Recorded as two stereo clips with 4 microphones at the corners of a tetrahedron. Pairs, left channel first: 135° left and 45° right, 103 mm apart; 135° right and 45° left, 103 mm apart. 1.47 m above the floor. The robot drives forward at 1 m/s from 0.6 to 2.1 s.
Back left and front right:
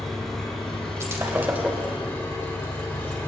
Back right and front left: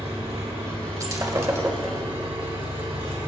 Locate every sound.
0.0 s an engine running: 50° left, 4 m; by 3.3 s 70° left, 3.5 m
1.0 s breaking glass: 5° left, 1.7 m; by 1.9 s 20° left, 1.2 m